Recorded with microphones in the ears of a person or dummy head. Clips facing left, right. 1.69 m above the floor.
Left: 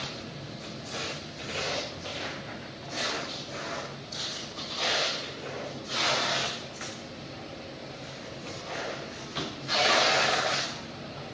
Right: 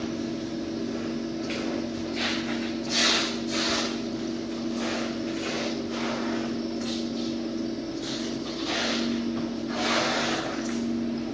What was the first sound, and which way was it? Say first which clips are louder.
A fan: right 11 dB; 80° right.